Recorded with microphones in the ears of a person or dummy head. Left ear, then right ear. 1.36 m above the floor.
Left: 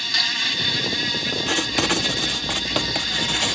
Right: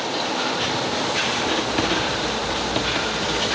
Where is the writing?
25° left (ahead or behind).